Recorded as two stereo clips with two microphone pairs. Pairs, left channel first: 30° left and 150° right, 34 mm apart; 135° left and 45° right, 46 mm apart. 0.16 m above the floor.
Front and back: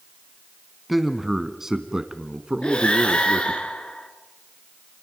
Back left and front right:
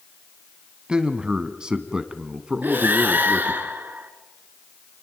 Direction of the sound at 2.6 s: 15° right.